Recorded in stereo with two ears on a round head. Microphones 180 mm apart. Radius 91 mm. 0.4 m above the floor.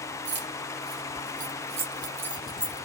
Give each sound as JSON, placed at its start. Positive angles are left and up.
{"t": 0.2, "sound": "keys jangling", "side_deg": -60, "distance_m": 1.3}